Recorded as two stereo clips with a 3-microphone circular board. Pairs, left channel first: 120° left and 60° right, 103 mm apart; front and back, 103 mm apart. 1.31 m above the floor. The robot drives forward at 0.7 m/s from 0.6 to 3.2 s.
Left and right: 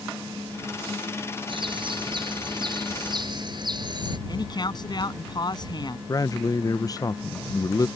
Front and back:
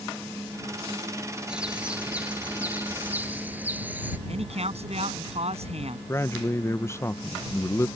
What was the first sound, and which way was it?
A bird, 100° right.